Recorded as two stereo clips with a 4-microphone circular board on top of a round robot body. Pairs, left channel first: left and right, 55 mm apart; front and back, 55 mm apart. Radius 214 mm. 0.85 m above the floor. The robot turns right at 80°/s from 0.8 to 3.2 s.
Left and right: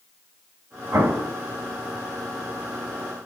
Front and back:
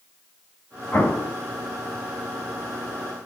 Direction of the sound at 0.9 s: 70° right.